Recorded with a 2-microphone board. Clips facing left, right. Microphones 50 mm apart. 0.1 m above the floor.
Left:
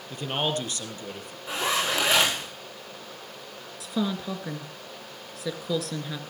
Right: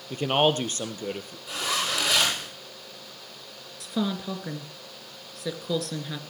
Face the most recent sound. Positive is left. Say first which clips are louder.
# even
turn(degrees=0)  # may be behind; listen again after turning